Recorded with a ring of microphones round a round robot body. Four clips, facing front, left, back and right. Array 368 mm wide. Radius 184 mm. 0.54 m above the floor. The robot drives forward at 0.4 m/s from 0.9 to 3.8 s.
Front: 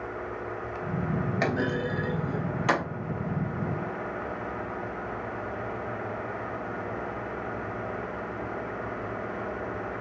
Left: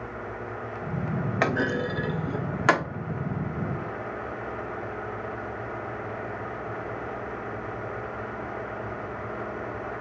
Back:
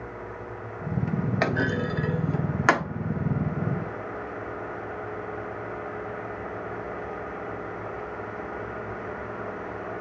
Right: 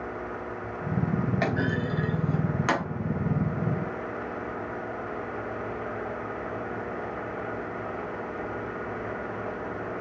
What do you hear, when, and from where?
1.4 s a clunk: 125° left, 0.8 m; by 2.8 s 155° left, 1.1 m